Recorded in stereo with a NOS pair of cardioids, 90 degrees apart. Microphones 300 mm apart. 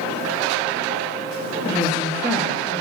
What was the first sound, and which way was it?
A woman speaking, 20° left.